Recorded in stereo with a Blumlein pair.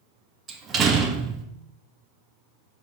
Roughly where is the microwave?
No microwave in this recording.